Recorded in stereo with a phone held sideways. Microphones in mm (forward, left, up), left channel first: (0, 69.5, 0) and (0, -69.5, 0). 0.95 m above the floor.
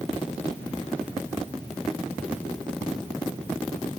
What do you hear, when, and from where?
Only background noise.